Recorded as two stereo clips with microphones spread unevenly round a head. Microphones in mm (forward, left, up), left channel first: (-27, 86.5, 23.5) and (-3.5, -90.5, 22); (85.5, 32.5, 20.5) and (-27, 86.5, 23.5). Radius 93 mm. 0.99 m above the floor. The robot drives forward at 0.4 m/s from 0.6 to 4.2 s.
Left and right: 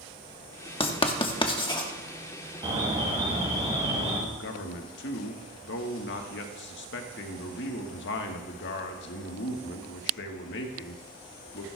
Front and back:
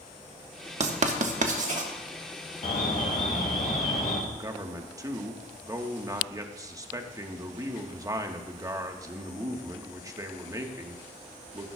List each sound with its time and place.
0.8 s writing: 150° left, 1.1 m; by 1.9 s 160° left, 1.4 m
2.6 s an alarm: 20° right, 2 m; by 4.2 s 25° right, 1.7 m
4.3 s a man speaking: 90° left, 1.4 m